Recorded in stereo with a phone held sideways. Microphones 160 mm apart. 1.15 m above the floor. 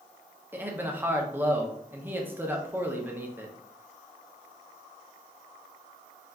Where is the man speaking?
15° right (ahead or behind), 0.6 m.